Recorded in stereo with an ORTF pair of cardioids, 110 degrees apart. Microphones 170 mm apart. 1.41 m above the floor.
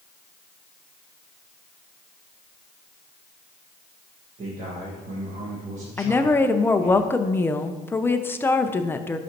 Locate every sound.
4.4 s a man speaking: 45° right, 1.7 m
6.0 s a woman speaking: 15° left, 0.6 m